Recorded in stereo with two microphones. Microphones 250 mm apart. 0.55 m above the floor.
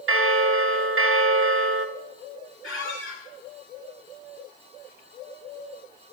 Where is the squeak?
60° left (ahead or behind), 2.5 m.